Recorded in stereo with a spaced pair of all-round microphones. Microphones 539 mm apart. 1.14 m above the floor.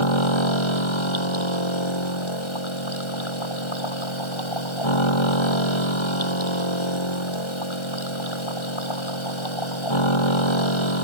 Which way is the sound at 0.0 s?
65° left (ahead or behind).